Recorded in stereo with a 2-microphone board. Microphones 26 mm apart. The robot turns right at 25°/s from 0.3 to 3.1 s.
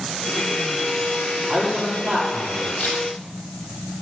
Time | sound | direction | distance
1.5 | a man speaking | 125° right | 7 m
2.8 | a camera shutter | 65° left (ahead or behind) | 6.5 m